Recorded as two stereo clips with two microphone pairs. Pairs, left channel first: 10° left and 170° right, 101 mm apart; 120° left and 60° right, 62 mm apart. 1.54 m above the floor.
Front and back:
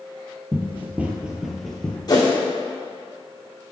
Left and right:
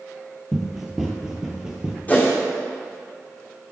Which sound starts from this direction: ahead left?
A whoosh, at 2.1 s.